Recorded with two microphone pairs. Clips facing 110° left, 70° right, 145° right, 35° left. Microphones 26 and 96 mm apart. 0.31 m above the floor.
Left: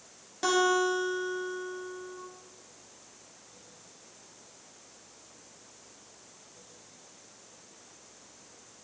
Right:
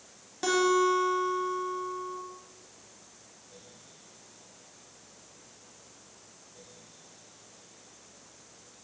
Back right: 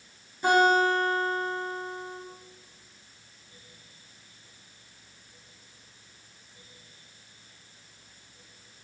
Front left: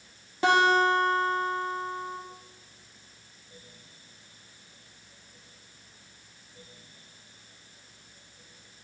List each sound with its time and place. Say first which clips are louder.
0.4 s a guitar: right 1 dB, even; 25° left, 2 m